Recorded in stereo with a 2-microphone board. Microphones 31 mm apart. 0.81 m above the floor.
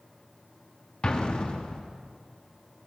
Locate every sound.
1.0 s an explosion: 30° left (ahead or behind), 1.3 m